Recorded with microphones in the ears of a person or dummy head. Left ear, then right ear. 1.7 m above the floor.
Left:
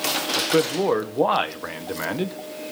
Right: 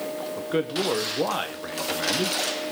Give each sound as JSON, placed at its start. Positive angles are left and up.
{"t": 0.4, "sound": "a man speaking", "side_deg": 25, "distance_m": 1.4}